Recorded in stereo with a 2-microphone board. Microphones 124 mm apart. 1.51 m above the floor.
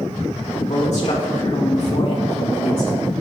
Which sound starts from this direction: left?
A man speaking, at 0.6 s.